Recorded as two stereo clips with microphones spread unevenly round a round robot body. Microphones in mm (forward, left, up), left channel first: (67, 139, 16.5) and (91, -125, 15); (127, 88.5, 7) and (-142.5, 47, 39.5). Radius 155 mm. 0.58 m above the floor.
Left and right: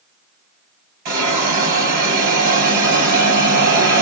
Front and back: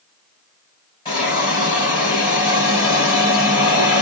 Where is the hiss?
65° right, 2.5 m.